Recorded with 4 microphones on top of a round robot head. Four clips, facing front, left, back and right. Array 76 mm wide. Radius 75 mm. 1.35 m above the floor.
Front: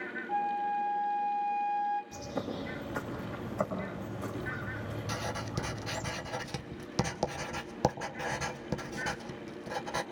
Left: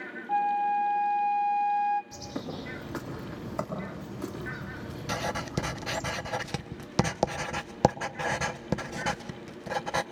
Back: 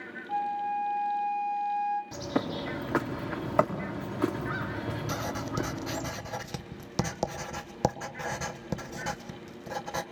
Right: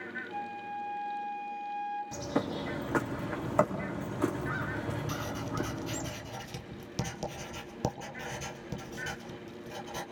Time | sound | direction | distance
0.3 | a flute | 90° left | 1.9 m
2.1 | a bird | 160° right | 4 m
5.1 | writing | 105° left | 1.4 m